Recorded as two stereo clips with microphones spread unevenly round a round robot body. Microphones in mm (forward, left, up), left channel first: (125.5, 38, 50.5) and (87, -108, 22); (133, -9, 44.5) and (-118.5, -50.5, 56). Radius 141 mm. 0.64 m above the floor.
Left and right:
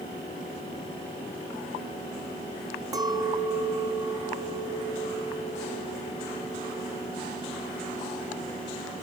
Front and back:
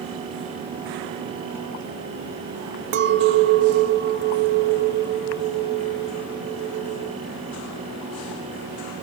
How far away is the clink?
About 0.7 m.